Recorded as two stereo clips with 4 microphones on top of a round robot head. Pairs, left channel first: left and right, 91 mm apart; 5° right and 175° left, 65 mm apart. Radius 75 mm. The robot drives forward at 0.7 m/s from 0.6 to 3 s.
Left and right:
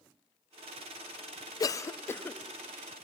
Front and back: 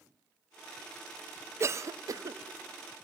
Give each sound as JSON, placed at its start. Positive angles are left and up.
{"t": 1.6, "sound": "a cough", "azimuth_deg": 130, "distance_m": 0.6}